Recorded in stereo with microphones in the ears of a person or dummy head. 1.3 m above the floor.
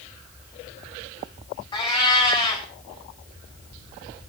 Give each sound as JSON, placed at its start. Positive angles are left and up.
{"t": 1.7, "sound": "a cat meowing", "side_deg": 30, "distance_m": 3.5}